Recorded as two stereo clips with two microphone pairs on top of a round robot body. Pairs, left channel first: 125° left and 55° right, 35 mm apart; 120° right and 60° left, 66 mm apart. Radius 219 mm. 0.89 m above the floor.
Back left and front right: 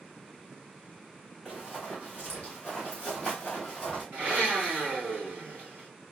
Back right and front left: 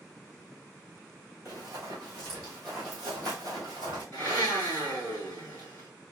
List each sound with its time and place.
1.4 s running footsteps: 10° left, 1.2 m; by 4.0 s 130° right, 1.0 m
4.1 s a blender: 65° right, 0.9 m